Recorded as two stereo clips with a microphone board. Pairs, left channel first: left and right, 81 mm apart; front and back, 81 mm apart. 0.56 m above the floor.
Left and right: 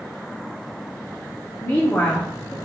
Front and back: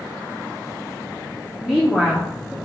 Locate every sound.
1.6 s a woman speaking: 110° left, 0.8 m